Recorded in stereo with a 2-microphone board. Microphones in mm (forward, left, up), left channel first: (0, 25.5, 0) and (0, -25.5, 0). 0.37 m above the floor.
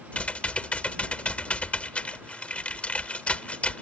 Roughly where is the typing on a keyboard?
Left.